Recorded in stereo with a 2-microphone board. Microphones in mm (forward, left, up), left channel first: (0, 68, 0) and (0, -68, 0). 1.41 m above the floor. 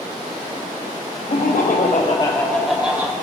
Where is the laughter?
75° left (ahead or behind), 1.0 m; by 3.1 s 15° right (ahead or behind), 1.2 m.